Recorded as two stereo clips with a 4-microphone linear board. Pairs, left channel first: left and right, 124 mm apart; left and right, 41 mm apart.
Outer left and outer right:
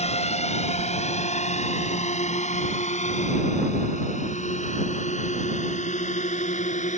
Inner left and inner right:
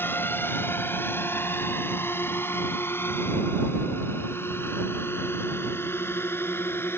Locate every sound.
0.0 s a drone: 60° left (ahead or behind); by 7.0 s 75° left (ahead or behind)